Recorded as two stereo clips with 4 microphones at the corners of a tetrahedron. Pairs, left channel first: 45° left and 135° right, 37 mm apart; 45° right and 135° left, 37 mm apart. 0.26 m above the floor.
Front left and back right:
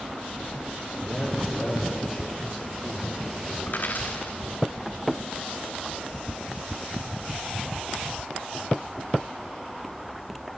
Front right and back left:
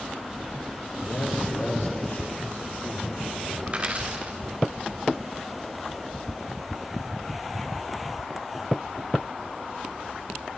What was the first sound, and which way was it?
A man speaking, 45° right.